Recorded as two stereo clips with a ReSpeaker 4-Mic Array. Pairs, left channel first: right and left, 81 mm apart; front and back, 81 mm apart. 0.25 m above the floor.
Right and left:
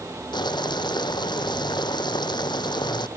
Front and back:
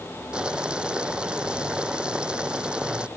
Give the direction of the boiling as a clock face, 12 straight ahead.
3 o'clock.